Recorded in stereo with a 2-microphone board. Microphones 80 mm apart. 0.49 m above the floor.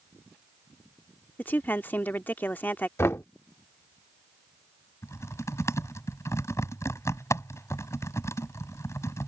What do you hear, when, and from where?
1.4 s a woman speaking: 25° left (ahead or behind)
3.0 s knocking: 35° left (ahead or behind)
5.0 s typing on a keyboard: 40° left (ahead or behind)